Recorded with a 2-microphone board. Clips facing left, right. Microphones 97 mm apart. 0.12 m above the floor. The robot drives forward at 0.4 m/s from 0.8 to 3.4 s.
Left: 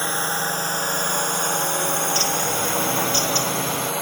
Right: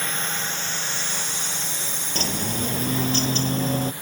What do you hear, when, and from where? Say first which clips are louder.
0.0 s a drone: left 5 dB; 30° left (ahead or behind); by 4.0 s 85° left
2.1 s a bird: left 4 dB; 45° right (ahead or behind); by 3.9 s 40° right (ahead or behind)